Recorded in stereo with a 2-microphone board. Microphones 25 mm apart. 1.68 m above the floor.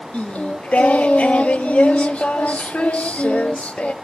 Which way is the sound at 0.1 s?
85° left.